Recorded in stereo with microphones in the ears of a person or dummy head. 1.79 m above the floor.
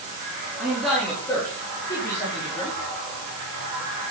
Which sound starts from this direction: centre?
A man speaking, at 0.6 s.